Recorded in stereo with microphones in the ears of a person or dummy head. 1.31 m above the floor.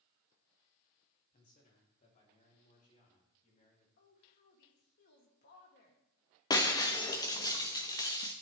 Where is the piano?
No piano in this recording.